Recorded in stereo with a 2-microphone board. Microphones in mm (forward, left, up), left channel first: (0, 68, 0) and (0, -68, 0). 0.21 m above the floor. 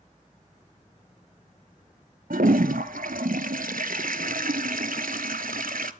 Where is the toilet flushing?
85° right, 0.6 m.